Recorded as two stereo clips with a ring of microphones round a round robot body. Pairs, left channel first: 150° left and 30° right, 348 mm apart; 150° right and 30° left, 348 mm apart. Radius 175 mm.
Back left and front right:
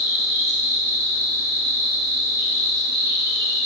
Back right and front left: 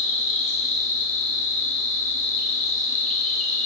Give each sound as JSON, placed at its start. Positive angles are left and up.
{"t": 0.0, "sound": "an insect", "azimuth_deg": -100, "distance_m": 1.1}